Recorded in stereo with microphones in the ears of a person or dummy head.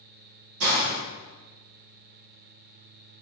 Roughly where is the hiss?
Right.